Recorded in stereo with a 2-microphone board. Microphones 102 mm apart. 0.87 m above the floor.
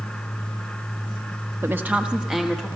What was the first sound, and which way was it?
A woman speaking, 25° right (ahead or behind).